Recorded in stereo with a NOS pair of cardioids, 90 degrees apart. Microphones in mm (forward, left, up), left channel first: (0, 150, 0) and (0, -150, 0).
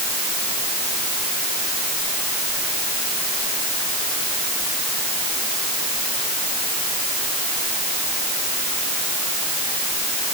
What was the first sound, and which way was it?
Only background noise.